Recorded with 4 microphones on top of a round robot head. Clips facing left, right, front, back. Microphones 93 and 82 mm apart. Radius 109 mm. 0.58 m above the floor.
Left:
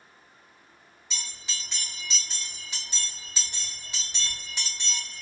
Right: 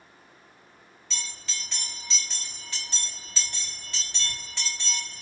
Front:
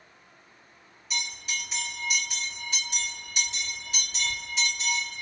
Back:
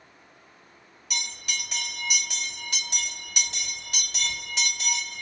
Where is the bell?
165° left, 3 m.